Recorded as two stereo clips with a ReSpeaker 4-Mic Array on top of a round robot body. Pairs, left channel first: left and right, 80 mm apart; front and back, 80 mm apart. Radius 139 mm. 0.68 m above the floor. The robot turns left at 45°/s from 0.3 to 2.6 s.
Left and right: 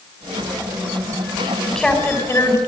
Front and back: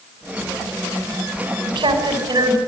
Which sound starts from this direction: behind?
A woman speaking, at 1.7 s.